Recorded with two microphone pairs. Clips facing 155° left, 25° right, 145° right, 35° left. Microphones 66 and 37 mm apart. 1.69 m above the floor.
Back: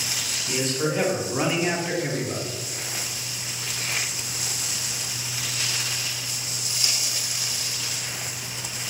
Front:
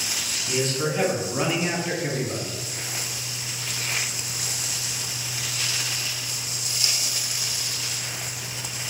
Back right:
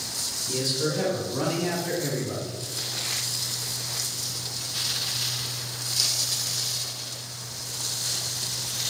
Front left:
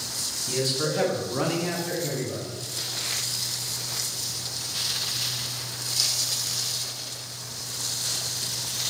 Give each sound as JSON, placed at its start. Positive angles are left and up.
{"t": 0.5, "sound": "a man speaking", "azimuth_deg": 65, "distance_m": 1.2}